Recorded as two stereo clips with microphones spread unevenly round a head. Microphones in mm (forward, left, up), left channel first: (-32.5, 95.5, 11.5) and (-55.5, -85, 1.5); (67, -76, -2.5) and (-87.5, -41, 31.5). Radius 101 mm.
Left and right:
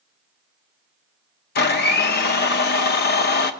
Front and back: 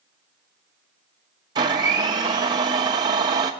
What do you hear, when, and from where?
1.6 s a blender: 105° left, 0.8 m